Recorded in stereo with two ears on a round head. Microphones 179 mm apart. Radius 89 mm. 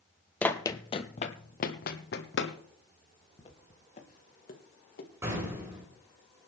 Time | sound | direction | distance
0.4 | running footsteps | 10° left (ahead or behind) | 0.8 m
3.4 | footsteps | 30° left (ahead or behind) | 2.5 m
5.2 | an explosion | 15° right (ahead or behind) | 9.5 m